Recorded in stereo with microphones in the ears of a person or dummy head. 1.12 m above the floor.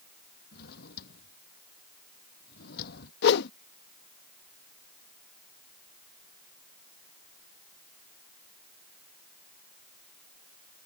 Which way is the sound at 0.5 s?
55° left (ahead or behind).